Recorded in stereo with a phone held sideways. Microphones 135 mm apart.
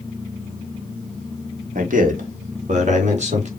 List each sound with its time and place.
1.8 s a man speaking: 70° right (ahead or behind), 1.5 m; by 3.5 s 55° right (ahead or behind), 2.5 m